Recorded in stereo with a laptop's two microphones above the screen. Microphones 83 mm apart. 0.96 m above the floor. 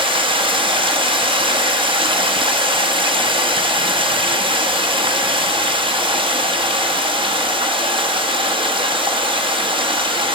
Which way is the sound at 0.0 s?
70° right (ahead or behind).